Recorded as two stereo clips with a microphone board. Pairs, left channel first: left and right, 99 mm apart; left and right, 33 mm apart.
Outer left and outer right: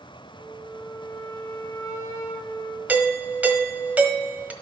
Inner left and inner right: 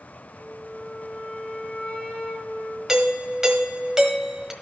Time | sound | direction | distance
0.3 | a flute | 35° left (ahead or behind) | 1.5 m
2.9 | a doorbell | 15° right (ahead or behind) | 1.3 m